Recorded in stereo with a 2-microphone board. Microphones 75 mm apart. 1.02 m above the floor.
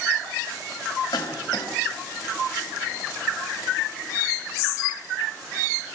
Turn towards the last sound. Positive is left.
turn(degrees=70)  # may be behind; listen again after turning